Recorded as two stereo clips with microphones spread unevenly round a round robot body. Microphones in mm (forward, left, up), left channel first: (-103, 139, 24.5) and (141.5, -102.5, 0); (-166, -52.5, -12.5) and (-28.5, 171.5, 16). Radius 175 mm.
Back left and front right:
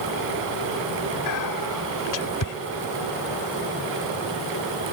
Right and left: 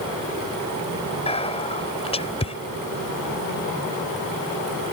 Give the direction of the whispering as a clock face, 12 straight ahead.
6 o'clock.